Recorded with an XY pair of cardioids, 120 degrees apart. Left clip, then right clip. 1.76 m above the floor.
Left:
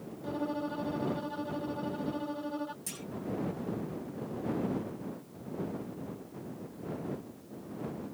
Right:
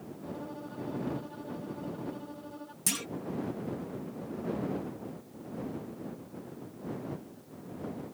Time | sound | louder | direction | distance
0.2 | a violin | left 8 dB | 45° left | ?
2.9 | a clunk | right 10 dB | 65° right | ?